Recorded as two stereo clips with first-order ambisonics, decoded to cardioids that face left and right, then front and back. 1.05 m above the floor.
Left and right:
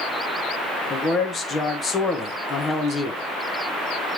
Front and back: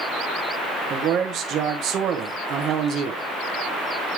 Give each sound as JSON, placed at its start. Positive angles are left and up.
{"t": 0.9, "sound": "a man speaking", "azimuth_deg": 155, "distance_m": 1.0}